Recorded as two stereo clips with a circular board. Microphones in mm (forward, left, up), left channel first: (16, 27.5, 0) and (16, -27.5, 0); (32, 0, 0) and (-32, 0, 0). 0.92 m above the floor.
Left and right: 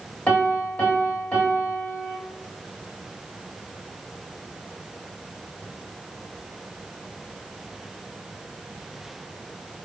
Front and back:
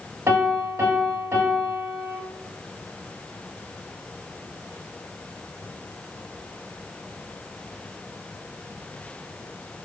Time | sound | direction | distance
0.3 | a piano | 150° left | 1.0 m